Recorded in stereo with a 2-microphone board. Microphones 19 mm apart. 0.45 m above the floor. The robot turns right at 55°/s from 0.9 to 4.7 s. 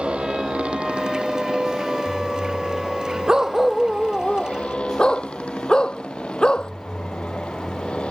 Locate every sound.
0.0 s a motorcycle: 100° right; by 8.1 s 110° left
3.3 s a dog barking: 30° right; by 6.7 s 50° left